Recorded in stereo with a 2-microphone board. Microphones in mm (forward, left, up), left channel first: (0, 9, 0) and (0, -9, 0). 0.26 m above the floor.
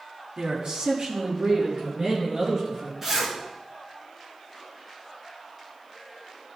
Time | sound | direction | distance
0.4 | a man speaking | 55° right (ahead or behind) | 1.9 m
3.0 | a zipper | 25° right (ahead or behind) | 2.5 m